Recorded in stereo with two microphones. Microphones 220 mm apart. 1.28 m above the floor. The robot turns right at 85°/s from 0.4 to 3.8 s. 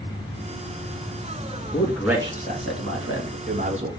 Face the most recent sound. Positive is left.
turn(degrees=-25)  # may be behind; listen again after turning